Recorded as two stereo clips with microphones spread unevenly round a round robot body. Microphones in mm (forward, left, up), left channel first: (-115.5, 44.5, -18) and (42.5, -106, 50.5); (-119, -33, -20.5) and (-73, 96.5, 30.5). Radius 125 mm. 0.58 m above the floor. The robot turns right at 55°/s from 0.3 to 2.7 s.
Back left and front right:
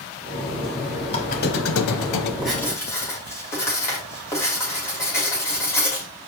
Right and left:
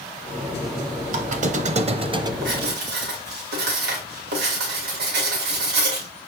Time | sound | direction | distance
1.1 | a squeak | 60° left | 0.7 m
2.4 | writing | 45° left | 2.5 m